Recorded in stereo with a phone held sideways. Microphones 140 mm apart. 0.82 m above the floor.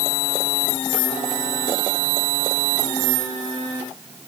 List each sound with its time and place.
Only background noise.